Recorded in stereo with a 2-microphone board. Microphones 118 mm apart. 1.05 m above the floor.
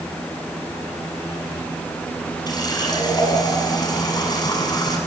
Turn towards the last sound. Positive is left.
turn(degrees=35)  # may be behind; listen again after turning